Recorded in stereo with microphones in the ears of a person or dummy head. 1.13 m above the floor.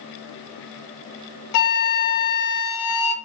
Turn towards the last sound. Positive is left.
turn(degrees=50)  # may be behind; listen again after turning